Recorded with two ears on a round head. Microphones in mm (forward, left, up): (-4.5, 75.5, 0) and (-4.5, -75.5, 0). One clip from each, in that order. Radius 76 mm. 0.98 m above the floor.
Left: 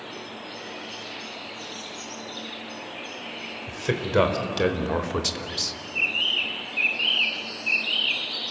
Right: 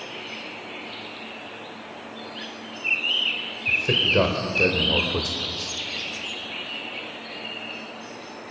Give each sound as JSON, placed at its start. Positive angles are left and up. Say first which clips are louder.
{"t": 3.7, "sound": "a man speaking", "louder": "right 8 dB", "side_deg": 30, "distance_m": 3.5}